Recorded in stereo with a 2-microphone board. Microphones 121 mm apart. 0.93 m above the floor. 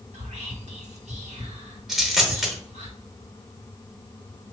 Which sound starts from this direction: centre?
A dropped coin, at 1.9 s.